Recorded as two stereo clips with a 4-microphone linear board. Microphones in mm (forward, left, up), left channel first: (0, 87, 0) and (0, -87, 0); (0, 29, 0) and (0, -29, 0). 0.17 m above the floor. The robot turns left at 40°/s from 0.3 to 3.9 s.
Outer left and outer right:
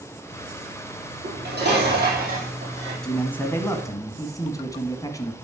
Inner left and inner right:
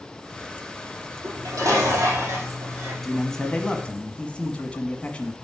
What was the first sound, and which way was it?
Dishes clattering, 80° right.